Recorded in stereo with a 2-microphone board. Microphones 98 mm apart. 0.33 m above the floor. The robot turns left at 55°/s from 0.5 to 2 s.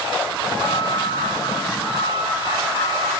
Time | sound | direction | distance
0.5 | a flute | 155° left | 5.5 m